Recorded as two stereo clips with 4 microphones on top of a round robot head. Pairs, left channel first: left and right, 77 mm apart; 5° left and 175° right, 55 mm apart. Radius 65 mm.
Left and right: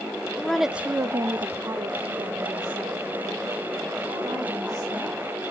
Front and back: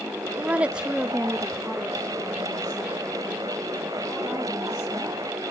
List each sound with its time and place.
0.3 s a woman speaking: 155° left, 0.8 m; by 5.2 s 60° right, 5 m